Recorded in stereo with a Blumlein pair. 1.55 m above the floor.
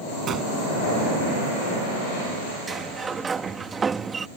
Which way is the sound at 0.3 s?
25° right.